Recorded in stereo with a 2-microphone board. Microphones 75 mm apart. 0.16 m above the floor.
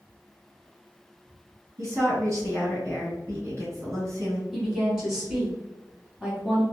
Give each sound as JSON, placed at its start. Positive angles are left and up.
{"t": 1.8, "sound": "a woman speaking", "side_deg": -40, "distance_m": 2.0}
{"t": 4.5, "sound": "a woman speaking", "side_deg": -5, "distance_m": 1.9}